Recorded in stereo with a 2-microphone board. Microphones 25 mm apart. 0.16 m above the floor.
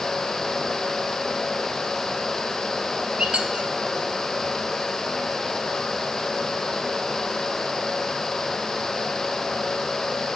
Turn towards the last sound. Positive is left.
turn(degrees=-50)  # may be behind; listen again after turning